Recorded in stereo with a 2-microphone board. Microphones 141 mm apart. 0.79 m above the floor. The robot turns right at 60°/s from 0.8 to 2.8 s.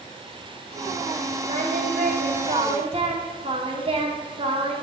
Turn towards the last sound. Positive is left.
turn(degrees=-45)